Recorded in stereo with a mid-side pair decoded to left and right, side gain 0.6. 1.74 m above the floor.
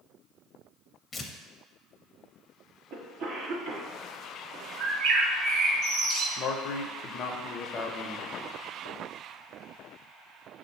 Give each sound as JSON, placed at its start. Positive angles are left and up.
{"t": 1.1, "sound": "tearing paper", "azimuth_deg": 30, "distance_m": 0.6}
{"t": 2.9, "sound": "a cough", "azimuth_deg": -70, "distance_m": 1.3}
{"t": 4.8, "sound": "a bird", "azimuth_deg": -65, "distance_m": 0.9}
{"t": 6.4, "sound": "a man speaking", "azimuth_deg": 55, "distance_m": 0.6}